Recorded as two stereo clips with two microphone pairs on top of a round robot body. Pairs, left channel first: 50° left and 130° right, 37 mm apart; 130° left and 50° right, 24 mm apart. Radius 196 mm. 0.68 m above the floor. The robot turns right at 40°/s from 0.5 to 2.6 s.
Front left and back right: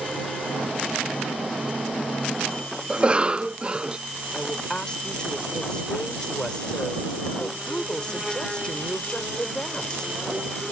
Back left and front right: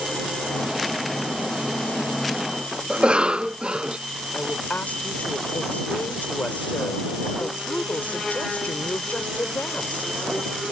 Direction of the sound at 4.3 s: 120° left.